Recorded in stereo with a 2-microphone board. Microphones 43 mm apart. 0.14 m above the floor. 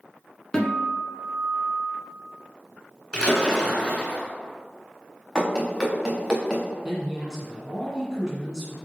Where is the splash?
15° left (ahead or behind), 1.1 m.